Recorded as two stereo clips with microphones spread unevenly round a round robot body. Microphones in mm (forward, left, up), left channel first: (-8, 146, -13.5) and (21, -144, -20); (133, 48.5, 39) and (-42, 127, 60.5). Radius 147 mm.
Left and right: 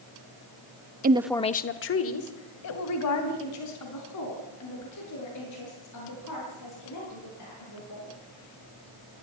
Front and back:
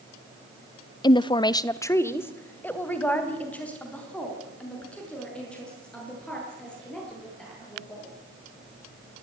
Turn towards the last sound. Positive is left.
turn(degrees=60)